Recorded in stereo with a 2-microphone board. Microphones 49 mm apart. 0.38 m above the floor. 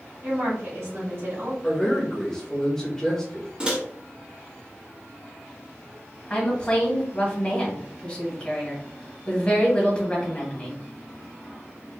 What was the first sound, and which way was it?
A woman speaking, 60° right (ahead or behind).